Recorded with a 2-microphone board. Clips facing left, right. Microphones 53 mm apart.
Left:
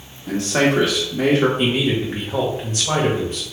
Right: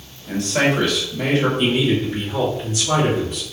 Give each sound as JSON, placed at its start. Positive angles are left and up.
{"t": 0.3, "sound": "a man speaking", "side_deg": 75, "distance_m": 1.7}
{"t": 1.6, "sound": "a man speaking", "side_deg": 45, "distance_m": 1.4}